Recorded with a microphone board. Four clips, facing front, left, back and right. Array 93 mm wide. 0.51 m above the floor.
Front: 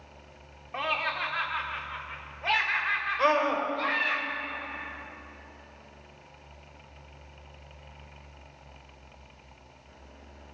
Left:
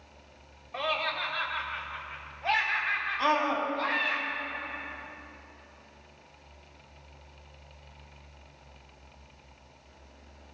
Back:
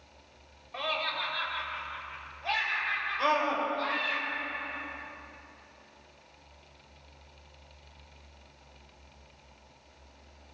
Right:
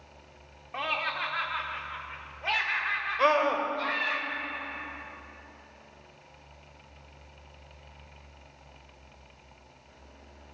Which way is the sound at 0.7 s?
35° right.